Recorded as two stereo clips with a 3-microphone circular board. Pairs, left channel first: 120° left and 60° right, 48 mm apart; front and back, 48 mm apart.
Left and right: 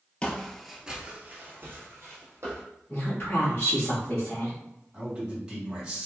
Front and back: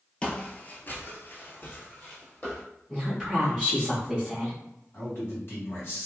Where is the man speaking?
10° left, 1.9 m.